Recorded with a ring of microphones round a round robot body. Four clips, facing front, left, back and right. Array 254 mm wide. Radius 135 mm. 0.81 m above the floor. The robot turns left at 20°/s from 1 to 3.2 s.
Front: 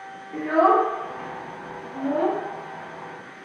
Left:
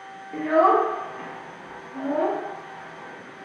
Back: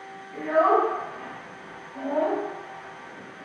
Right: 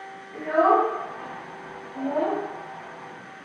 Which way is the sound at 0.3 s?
65° left.